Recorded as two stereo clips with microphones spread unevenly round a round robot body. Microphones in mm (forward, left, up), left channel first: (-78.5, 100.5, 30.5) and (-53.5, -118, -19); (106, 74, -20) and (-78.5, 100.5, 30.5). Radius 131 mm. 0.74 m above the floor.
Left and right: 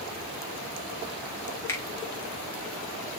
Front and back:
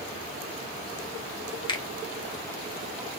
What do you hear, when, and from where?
1.7 s a finger snap: 5° left, 1.0 m